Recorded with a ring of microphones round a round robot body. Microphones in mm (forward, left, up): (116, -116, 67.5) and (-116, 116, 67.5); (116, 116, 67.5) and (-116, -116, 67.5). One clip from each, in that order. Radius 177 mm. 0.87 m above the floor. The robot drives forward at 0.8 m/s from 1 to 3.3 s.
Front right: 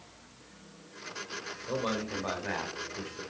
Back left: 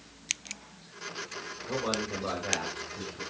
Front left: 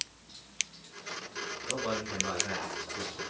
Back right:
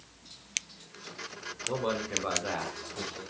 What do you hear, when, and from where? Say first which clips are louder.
1.7 s a man speaking: back left 1 dB, back right 4 dB; 120° right, 3 m; by 3.2 s 135° right, 4 m